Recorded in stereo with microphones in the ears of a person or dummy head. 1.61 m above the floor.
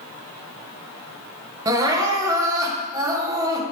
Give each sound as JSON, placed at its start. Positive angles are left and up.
{"t": 1.6, "sound": "crying", "side_deg": -20, "distance_m": 1.3}